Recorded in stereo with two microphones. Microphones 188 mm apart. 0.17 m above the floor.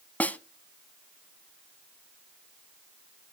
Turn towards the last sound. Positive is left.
turn(degrees=10)  # may be behind; listen again after turning